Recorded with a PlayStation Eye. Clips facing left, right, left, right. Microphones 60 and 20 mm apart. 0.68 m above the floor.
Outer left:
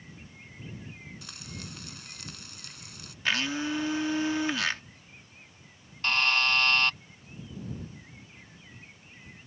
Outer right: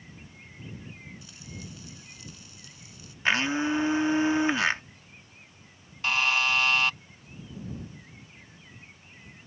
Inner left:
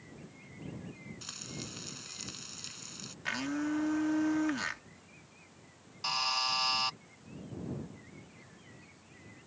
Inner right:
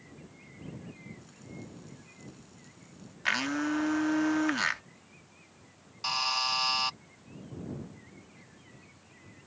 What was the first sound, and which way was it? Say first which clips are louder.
Frying: outer left 1 dB, inner left 4 dB; 70° left (ahead or behind).